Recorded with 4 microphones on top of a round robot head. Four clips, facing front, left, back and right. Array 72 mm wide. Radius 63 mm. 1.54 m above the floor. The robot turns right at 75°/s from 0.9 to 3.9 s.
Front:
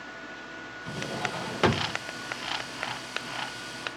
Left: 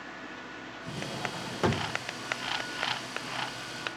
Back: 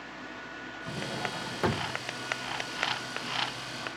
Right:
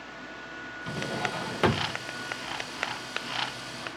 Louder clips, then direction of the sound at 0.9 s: Right 5 dB, front 2 dB; 85° right.